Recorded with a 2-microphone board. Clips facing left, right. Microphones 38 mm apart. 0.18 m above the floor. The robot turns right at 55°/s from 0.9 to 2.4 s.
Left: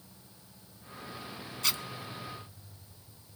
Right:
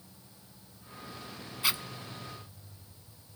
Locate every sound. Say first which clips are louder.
1.6 s a zipper: right 2 dB; 20° right (ahead or behind), 0.7 m; by 1.8 s 10° right (ahead or behind), 0.7 m